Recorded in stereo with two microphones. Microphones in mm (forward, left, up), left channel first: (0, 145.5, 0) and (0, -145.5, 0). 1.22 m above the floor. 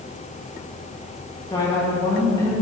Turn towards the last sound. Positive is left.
turn(degrees=15)  # may be behind; listen again after turning